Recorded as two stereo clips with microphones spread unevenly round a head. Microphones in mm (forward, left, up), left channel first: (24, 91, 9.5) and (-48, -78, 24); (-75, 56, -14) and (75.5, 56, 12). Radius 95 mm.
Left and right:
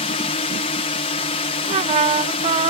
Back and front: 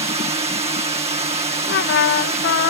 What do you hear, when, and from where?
0.0 s a drone: 35° left
1.7 s a trumpet: 170° right